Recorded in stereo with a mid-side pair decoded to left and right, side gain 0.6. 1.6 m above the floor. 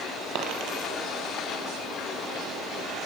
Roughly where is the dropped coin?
Ahead right.